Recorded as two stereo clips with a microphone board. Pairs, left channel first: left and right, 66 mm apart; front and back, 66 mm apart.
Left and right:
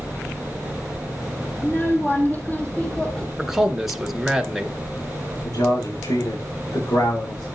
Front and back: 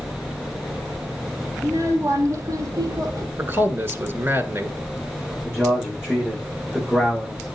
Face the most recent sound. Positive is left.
turn(degrees=100)